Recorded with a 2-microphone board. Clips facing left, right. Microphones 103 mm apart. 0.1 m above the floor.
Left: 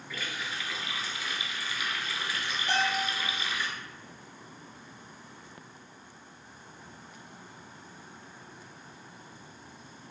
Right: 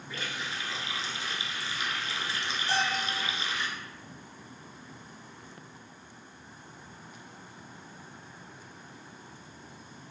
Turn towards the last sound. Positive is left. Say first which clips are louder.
# left 1 dB
turn(degrees=55)  # may be behind; listen again after turning